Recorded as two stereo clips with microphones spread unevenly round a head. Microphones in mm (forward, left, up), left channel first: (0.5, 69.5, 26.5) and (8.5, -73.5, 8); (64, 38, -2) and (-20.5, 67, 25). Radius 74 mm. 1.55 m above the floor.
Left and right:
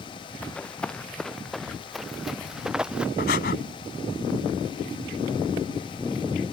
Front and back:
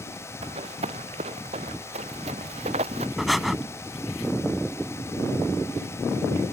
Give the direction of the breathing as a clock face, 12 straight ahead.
9 o'clock.